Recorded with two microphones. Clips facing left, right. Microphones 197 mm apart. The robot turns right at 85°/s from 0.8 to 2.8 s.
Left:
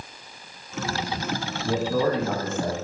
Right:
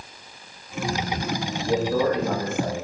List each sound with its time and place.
1.6 s a man speaking: 95° left, 1.7 m; by 2.8 s 170° right, 1.7 m